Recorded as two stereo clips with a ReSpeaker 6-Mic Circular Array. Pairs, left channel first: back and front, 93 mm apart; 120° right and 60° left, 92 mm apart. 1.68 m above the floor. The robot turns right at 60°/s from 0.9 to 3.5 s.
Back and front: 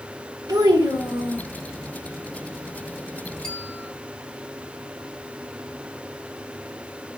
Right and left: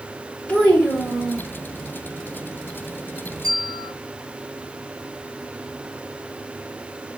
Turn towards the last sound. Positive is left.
turn(degrees=105)